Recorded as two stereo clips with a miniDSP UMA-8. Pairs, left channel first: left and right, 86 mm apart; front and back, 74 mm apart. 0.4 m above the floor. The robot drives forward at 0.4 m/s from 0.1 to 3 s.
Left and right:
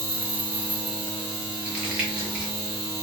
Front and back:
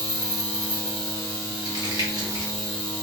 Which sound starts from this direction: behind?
Crumpling, at 1.6 s.